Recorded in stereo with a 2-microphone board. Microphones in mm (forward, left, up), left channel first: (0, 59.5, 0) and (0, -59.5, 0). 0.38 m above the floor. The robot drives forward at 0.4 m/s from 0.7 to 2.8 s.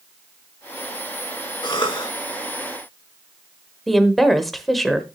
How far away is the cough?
About 1.6 m.